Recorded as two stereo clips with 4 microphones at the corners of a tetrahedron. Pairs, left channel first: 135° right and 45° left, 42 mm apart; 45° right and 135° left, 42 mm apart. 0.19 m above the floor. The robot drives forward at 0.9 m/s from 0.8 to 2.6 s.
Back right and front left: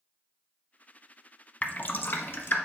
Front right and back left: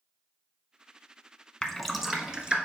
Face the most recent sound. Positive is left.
turn(degrees=-160)